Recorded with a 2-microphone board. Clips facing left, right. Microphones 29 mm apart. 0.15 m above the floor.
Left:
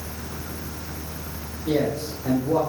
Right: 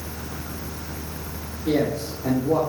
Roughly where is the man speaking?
Right.